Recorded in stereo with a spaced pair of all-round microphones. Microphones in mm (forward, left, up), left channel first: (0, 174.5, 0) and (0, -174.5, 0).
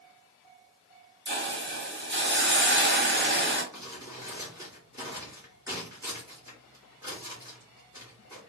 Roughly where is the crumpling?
Centre.